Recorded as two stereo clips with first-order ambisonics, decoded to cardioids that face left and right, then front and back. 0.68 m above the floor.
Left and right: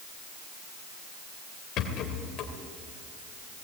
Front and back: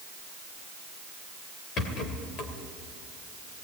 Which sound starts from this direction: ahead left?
A rattle, at 1.8 s.